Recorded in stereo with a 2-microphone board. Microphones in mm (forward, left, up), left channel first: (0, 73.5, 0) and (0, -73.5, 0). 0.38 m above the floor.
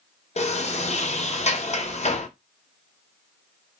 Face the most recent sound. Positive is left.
turn(degrees=50)  # may be behind; listen again after turning